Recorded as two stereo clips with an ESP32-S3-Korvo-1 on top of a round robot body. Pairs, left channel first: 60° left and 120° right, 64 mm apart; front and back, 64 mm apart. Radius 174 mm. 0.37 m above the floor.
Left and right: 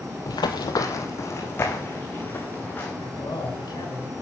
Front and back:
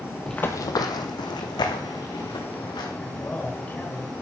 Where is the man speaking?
65° left, 4 m.